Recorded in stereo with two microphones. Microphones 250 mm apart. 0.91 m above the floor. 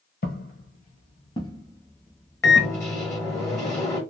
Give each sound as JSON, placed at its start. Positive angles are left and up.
{"t": 0.2, "sound": "footsteps", "side_deg": 40, "distance_m": 1.1}
{"t": 2.4, "sound": "a microwave", "side_deg": 10, "distance_m": 1.2}